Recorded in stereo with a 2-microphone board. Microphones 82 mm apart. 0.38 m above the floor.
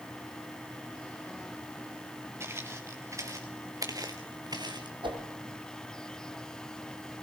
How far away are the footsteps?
About 3 m.